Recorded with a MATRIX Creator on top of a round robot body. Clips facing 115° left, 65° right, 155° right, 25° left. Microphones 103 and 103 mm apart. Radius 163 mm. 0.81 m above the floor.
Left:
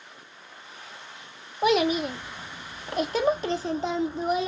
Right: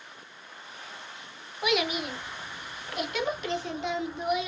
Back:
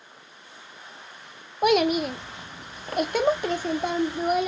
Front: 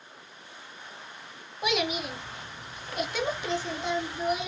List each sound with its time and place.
1.6 s a child speaking: 165° left, 0.8 m